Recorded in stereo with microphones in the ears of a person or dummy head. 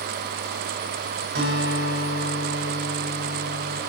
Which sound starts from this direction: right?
A guitar, at 1.4 s.